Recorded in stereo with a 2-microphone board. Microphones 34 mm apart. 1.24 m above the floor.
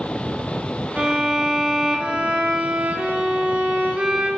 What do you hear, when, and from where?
1.0 s a violin: 35° right (ahead or behind), 1.5 m